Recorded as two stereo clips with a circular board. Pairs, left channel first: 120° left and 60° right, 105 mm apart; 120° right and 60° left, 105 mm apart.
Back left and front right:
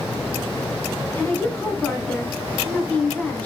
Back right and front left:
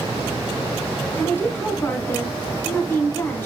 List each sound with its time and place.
1.2 s a woman speaking: 175° right, 1.3 m